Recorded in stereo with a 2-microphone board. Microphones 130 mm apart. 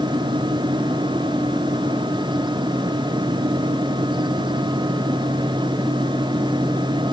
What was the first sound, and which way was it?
Only background noise.